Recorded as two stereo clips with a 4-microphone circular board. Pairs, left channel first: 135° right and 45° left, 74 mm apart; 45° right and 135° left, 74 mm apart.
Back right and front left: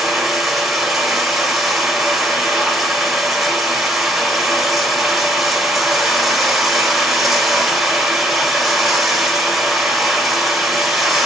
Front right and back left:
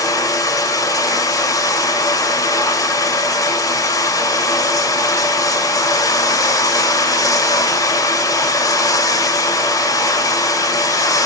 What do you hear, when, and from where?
0.0 s running water: 45° right, 1.6 m